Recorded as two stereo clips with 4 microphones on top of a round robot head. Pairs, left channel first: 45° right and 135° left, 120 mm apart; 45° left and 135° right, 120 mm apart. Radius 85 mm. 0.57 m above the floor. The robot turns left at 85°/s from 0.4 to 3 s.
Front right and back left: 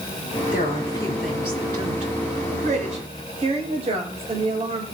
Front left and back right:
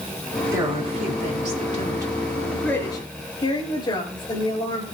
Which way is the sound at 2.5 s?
140° left.